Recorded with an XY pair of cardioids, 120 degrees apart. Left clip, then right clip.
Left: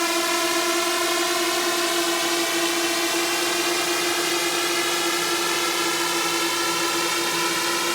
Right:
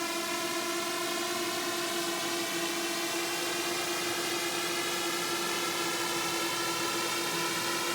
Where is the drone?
60° left; by 8.0 s 50° left.